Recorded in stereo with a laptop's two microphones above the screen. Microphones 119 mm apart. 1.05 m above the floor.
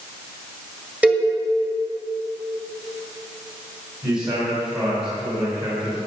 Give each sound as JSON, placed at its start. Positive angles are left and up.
{"t": 1.0, "sound": "a cowbell", "side_deg": -10, "distance_m": 1.8}
{"t": 4.0, "sound": "a man speaking", "side_deg": -40, "distance_m": 4.5}